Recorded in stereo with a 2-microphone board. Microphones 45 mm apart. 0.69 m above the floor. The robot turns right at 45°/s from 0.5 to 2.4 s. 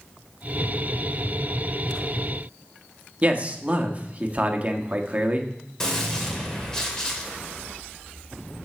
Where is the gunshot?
15° left (ahead or behind), 2.5 m.